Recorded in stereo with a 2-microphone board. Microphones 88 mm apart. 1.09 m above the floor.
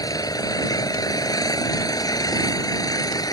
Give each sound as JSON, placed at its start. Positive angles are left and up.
{"t": 0.0, "sound": "an engine running", "side_deg": 45}